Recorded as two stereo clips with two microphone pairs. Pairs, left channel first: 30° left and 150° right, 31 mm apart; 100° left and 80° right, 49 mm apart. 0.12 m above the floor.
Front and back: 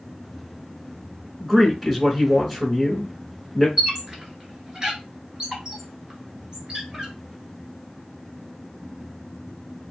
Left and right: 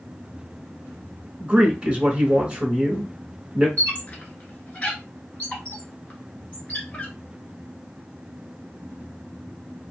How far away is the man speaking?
About 1.1 m.